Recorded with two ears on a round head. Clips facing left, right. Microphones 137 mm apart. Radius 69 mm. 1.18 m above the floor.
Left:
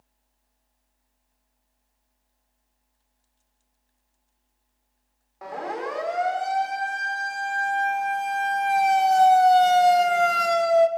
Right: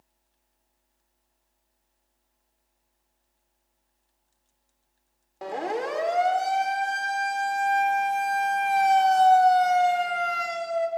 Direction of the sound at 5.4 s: 30° right (ahead or behind).